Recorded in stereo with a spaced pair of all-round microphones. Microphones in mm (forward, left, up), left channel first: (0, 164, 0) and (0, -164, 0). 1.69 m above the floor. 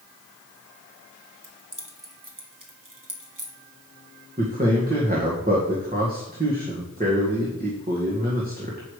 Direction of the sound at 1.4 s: 60° right (ahead or behind).